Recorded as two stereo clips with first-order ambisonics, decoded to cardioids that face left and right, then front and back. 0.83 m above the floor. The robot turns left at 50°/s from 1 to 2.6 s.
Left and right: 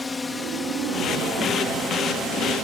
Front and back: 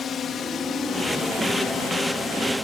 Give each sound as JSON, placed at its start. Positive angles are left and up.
{"t": 0.0, "sound": "a drone", "azimuth_deg": 20}